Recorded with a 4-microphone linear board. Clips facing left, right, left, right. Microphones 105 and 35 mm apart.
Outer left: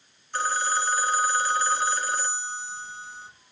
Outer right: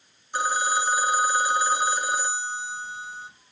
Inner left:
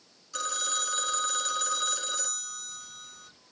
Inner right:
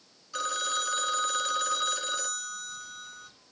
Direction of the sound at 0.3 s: 15° right (ahead or behind).